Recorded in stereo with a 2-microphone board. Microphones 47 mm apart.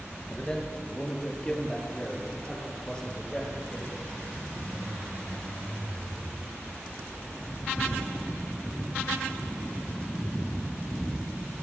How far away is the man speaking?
About 7 m.